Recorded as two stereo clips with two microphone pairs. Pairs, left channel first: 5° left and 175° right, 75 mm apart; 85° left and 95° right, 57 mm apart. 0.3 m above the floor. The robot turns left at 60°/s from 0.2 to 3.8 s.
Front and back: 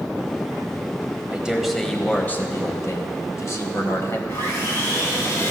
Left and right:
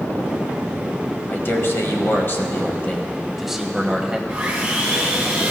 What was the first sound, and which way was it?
A man speaking, 120° left.